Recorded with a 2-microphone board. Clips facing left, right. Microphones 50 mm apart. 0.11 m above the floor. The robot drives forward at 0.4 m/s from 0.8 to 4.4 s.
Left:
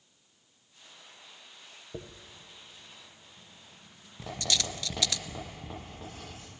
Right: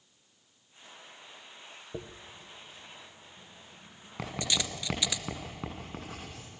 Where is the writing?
85° right, 8.5 m.